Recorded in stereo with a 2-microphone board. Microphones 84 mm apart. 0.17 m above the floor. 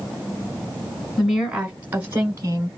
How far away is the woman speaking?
About 1.1 m.